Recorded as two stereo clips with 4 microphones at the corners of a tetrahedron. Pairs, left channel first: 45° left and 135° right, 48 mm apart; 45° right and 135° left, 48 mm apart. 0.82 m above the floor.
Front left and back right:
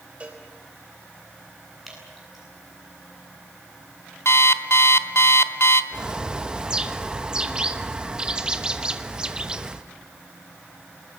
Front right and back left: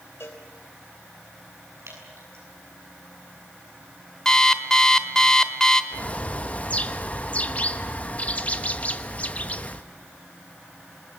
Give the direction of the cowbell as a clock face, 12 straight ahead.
2 o'clock.